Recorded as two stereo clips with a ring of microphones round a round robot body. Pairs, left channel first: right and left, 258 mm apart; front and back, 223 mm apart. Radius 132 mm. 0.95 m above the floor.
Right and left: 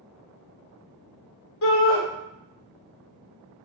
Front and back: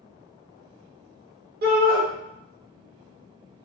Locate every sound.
1.6 s a shout: 125° right, 1.0 m